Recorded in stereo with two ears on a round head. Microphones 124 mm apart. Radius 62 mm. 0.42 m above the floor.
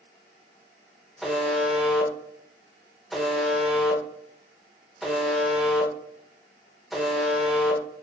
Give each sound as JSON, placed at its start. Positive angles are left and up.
{"t": 1.2, "sound": "a buzzer", "side_deg": 0, "distance_m": 1.2}